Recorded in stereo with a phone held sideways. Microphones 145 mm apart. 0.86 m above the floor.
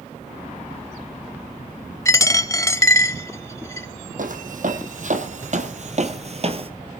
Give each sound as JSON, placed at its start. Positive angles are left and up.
{"t": 2.0, "sound": "a dropped coin", "side_deg": 20, "distance_m": 0.6}
{"t": 4.2, "sound": "footsteps", "side_deg": -65, "distance_m": 2.5}